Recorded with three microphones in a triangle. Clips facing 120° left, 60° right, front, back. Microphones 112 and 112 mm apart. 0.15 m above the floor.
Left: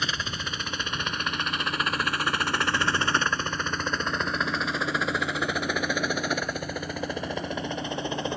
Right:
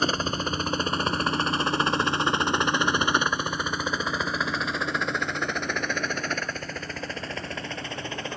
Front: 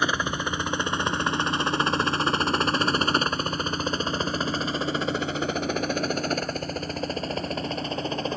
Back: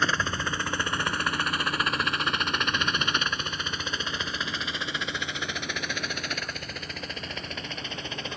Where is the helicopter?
70° right; by 8.4 s 50° left.